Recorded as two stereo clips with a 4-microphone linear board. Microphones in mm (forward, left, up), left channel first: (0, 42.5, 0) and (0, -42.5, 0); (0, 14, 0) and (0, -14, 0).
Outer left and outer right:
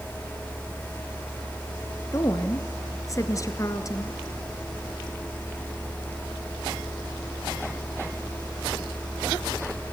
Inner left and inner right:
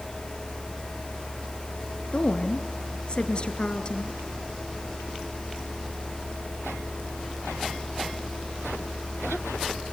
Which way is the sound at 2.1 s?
40° left (ahead or behind).